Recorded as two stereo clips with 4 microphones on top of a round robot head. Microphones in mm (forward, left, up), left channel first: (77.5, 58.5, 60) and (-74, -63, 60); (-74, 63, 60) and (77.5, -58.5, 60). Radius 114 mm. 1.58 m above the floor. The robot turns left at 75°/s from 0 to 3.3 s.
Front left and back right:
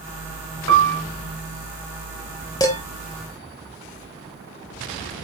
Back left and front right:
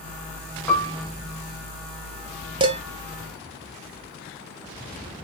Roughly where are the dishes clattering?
Ahead.